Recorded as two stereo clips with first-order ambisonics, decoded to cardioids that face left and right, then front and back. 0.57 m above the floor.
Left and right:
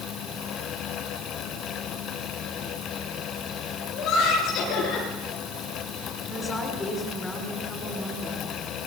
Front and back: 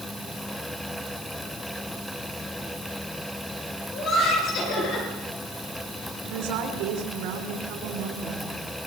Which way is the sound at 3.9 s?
40° left.